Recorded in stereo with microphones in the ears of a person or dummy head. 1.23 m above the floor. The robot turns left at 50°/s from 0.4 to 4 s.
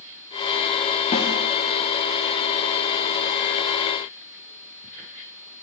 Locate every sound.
1.1 s a snare drum: 35° left (ahead or behind), 1.9 m; by 1.3 s 25° left (ahead or behind), 1.9 m